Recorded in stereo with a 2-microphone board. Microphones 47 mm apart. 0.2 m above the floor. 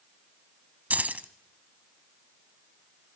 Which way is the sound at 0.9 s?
35° right (ahead or behind).